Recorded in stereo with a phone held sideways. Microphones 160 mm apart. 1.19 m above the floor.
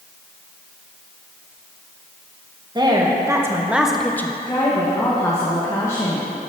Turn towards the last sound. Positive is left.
turn(degrees=20)  # may be behind; listen again after turning